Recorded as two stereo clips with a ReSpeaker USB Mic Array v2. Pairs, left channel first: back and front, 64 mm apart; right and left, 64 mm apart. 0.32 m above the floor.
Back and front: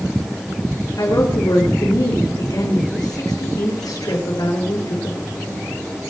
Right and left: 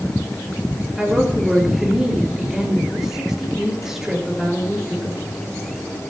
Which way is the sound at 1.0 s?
175° left.